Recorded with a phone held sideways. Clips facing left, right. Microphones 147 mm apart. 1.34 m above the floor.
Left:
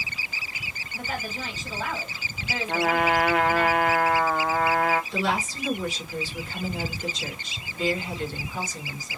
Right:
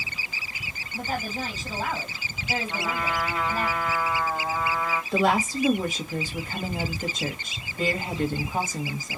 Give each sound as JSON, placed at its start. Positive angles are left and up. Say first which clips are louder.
{"t": 0.9, "sound": "a woman speaking", "louder": "right 3 dB", "side_deg": -30, "distance_m": 2.5}
{"t": 2.7, "sound": "a trumpet", "louder": "left 11 dB", "side_deg": 75, "distance_m": 0.6}
{"t": 5.1, "sound": "a woman speaking", "louder": "right 5 dB", "side_deg": -55, "distance_m": 1.4}